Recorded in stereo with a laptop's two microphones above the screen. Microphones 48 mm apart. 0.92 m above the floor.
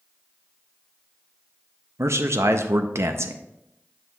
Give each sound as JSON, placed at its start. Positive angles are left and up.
{"t": 2.0, "sound": "a man speaking", "side_deg": -70, "distance_m": 0.6}